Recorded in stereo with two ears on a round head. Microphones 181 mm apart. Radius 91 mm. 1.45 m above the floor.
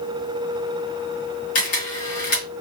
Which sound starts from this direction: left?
A camera shutter, at 1.6 s.